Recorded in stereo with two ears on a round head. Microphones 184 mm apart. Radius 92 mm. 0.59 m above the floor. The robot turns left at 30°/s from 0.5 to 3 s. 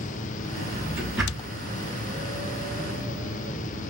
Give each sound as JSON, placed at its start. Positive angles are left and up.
{"t": 0.5, "sound": "a drawer", "side_deg": -25, "distance_m": 5.0}